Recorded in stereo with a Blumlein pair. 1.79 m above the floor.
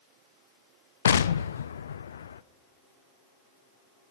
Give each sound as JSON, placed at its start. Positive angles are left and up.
{"t": 1.1, "sound": "an explosion", "azimuth_deg": 65, "distance_m": 0.6}